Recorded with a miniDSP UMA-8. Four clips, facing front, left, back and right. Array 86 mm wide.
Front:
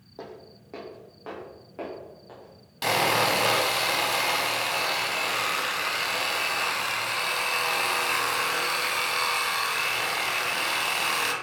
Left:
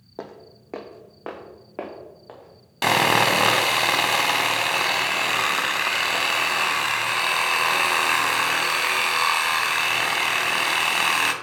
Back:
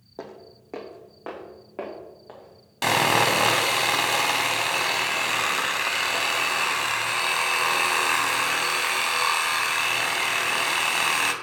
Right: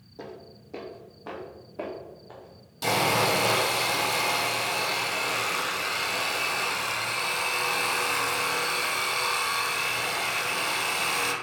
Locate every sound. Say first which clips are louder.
0.2 s footsteps: left 4 dB, back 2 dB; 105° left, 1.0 m; by 3.5 s 110° left, 3 m
2.8 s sawing: left 5 dB, back 3 dB; 110° left, 0.6 m